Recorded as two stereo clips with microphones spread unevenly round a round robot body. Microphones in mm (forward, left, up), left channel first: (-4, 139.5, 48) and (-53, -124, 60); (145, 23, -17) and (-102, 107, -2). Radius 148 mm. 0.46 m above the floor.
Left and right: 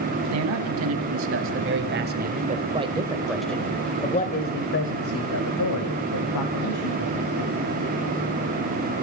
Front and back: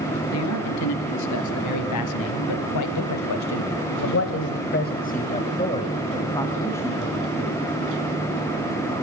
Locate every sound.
0.3 s a man speaking: 60° right, 3.5 m; by 7.6 s 65° left, 4 m